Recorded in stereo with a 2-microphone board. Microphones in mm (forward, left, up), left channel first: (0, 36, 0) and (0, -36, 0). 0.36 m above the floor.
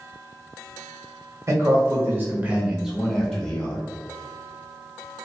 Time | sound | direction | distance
1.5 | a man speaking | 45° right (ahead or behind) | 1.6 m